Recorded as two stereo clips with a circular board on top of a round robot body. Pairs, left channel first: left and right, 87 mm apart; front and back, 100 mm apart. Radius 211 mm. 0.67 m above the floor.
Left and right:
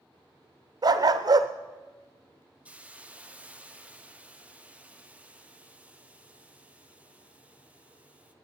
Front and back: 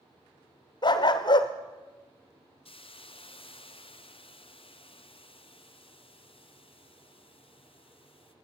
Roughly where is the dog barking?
Ahead right.